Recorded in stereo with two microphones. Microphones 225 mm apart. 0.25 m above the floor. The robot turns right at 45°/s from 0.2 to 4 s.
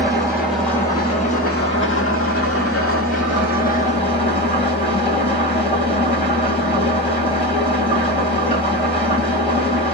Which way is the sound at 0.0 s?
15° right.